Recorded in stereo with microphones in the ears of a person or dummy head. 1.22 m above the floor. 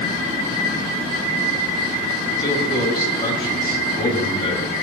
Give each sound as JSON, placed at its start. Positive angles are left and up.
{"t": 2.4, "sound": "a man speaking", "side_deg": 30, "distance_m": 9.0}